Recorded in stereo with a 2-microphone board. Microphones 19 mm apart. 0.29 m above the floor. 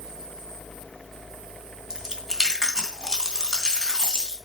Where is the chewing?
25° right (ahead or behind), 2.5 m.